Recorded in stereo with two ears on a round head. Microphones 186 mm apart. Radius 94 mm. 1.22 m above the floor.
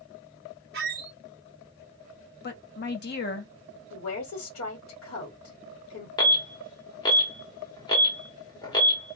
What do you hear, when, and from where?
0.7 s a squeak: 50° right (ahead or behind), 0.8 m
2.4 s a woman speaking: 55° left (ahead or behind), 1.3 m
3.9 s a woman speaking: 70° left (ahead or behind), 1.8 m
6.2 s an alarm: 20° left (ahead or behind), 1.5 m